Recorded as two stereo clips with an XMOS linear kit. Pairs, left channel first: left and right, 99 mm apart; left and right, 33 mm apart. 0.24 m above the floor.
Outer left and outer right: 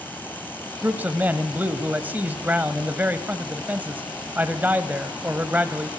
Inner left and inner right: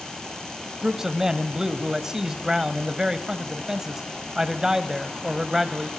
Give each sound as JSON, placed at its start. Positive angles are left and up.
{"t": 0.8, "sound": "a man speaking", "side_deg": -20, "distance_m": 0.9}